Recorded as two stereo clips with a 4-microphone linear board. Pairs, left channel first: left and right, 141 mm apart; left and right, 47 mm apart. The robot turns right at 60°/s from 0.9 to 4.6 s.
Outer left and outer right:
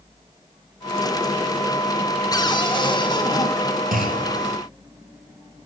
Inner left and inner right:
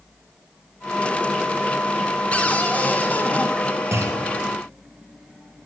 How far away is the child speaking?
I don't hear a child speaking.